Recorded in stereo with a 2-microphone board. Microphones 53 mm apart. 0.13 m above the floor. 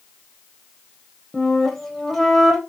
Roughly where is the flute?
Centre.